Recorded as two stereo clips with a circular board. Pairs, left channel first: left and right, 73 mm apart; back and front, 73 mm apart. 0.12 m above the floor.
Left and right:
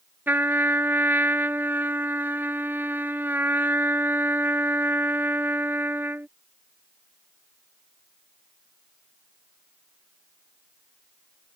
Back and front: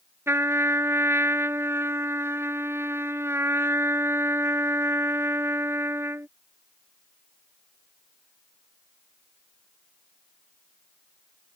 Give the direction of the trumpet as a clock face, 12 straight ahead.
1 o'clock.